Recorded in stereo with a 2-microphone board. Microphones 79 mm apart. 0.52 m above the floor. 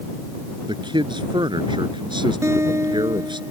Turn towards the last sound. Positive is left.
turn(degrees=-35)  # may be behind; listen again after turning